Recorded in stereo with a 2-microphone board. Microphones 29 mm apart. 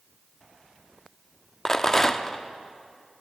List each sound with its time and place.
1.6 s a rattle: 15° left (ahead or behind), 0.5 m